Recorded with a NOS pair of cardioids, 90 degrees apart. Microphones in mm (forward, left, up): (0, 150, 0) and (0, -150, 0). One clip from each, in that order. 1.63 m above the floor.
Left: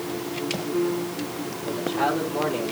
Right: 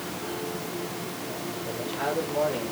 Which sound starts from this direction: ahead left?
A man speaking, at 1.6 s.